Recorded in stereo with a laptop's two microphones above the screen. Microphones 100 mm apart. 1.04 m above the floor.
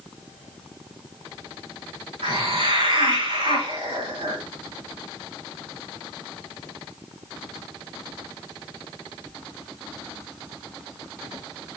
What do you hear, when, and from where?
2.2 s a hiss: 80° right, 5 m